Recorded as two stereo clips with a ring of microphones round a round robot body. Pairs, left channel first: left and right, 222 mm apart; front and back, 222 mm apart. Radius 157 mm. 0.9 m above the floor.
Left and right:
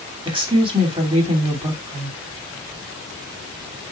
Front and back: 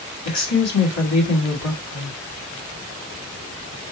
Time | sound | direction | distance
0.2 | a woman speaking | 20° right | 2.5 m